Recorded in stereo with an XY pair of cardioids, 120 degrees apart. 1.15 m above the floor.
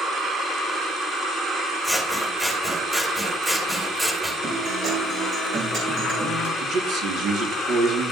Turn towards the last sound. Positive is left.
turn(degrees=-65)